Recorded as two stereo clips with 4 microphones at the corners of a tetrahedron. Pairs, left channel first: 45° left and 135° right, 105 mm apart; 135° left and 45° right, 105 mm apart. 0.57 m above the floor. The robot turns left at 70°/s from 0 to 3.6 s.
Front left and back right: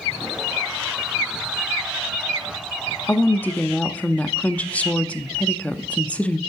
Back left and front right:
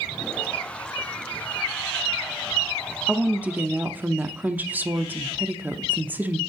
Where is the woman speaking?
25° left, 0.6 m; by 6.4 s 15° right, 0.6 m.